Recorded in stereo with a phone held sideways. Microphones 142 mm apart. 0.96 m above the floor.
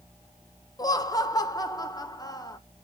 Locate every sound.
0.8 s laughter: 25° left (ahead or behind), 0.8 m